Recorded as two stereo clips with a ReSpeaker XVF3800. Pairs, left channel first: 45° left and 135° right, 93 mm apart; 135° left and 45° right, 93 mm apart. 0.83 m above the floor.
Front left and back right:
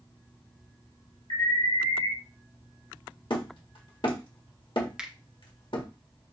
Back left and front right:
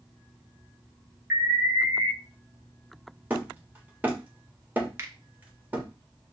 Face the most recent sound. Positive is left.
turn(degrees=-60)